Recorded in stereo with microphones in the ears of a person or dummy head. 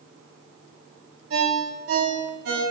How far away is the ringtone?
About 2.5 m.